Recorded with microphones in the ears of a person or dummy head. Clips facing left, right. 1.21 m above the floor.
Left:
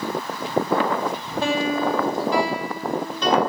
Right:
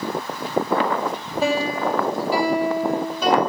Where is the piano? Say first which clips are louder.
Even; 5° right (ahead or behind), 2 m.